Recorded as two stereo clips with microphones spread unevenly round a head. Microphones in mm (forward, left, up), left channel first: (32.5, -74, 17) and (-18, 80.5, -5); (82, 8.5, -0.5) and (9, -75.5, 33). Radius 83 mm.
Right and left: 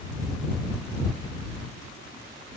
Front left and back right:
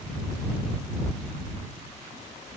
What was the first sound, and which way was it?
Only background noise.